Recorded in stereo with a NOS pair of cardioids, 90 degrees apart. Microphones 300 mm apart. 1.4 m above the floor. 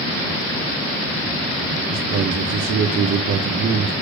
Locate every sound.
1.9 s a man speaking: 60° right, 1.7 m